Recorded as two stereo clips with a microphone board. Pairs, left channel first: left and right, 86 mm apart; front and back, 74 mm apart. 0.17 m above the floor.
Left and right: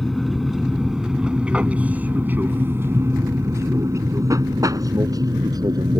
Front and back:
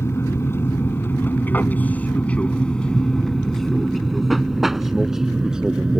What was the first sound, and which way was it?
An aircraft, 5° left.